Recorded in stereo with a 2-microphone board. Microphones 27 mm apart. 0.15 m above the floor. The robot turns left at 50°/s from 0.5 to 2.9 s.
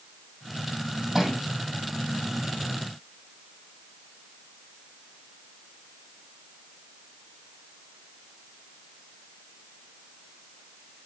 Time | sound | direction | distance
1.1 | a thud | 5° right (ahead or behind) | 3 m